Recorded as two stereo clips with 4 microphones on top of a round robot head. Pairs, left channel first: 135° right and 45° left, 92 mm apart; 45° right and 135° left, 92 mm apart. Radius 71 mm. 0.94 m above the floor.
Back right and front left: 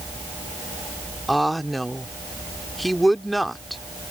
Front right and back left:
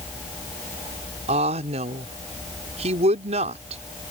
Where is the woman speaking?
135° left.